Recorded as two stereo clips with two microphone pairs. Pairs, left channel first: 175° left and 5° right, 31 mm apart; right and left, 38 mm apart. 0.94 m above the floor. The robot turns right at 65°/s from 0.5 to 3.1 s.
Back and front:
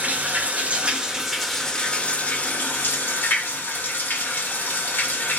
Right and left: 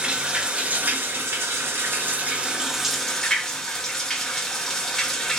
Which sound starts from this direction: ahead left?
Running water, at 0.0 s.